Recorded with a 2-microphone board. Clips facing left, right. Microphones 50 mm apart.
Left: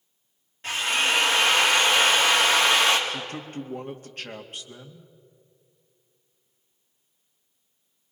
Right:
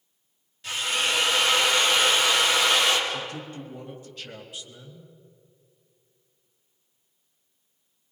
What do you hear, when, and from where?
0.6 s a drill: 40° left (ahead or behind), 4 m
3.1 s a man speaking: 50° left (ahead or behind), 2 m